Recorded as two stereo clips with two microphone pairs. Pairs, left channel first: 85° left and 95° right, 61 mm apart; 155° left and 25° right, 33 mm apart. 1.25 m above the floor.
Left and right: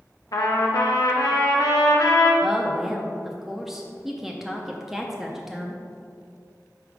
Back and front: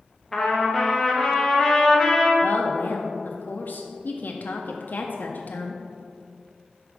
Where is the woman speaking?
175° left, 0.5 m.